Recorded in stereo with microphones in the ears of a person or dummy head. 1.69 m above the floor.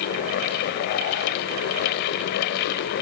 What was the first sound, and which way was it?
Only background noise.